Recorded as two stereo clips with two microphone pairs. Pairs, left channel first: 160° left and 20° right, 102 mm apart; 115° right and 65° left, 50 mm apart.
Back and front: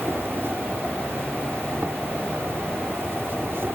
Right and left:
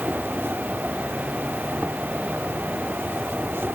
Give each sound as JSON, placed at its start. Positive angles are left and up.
{"t": 0.0, "sound": "an insect", "azimuth_deg": 45}